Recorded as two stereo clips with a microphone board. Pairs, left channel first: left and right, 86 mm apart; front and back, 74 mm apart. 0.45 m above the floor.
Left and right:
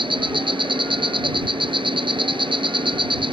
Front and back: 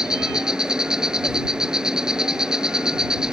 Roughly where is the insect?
Right.